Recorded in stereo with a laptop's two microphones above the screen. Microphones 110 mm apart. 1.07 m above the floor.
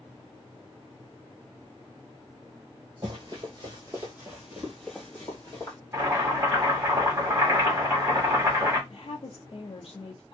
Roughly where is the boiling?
Right.